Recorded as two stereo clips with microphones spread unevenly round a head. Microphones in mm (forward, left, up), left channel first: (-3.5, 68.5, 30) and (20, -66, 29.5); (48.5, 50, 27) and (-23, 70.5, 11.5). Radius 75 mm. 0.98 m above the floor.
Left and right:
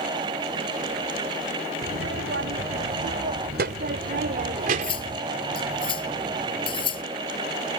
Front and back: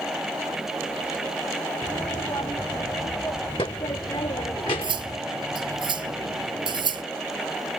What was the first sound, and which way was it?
A child speaking, 80° right.